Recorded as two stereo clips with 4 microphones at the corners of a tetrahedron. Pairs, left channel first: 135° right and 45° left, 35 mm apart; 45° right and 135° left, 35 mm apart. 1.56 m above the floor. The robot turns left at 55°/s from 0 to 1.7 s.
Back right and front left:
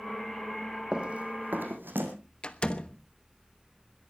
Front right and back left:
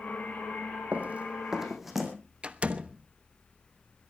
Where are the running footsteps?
110° left, 3 m; by 2.1 s 50° left, 3.5 m.